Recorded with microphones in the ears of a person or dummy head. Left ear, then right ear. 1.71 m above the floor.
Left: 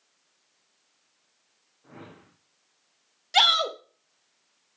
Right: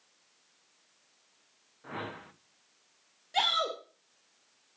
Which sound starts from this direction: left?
A shout, at 3.3 s.